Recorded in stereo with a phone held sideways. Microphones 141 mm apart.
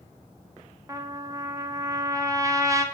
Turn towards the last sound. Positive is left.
turn(degrees=-20)  # may be behind; listen again after turning